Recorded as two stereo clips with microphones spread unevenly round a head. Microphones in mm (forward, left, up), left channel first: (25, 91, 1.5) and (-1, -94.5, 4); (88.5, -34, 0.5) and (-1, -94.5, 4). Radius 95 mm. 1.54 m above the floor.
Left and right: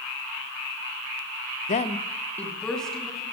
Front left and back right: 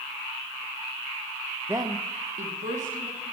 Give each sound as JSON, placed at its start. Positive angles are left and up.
{"t": 1.7, "sound": "a woman speaking", "azimuth_deg": 135, "distance_m": 0.5}